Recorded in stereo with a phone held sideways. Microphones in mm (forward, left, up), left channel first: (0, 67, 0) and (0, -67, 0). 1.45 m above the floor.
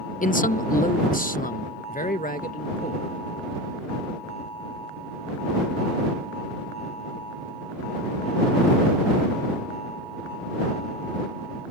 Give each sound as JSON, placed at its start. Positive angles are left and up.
{"t": 0.2, "sound": "a man speaking", "side_deg": 70}